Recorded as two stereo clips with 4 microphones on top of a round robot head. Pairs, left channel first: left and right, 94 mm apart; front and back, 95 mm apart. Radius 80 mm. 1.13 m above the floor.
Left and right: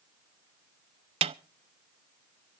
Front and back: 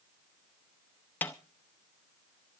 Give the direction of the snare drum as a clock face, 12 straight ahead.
3 o'clock.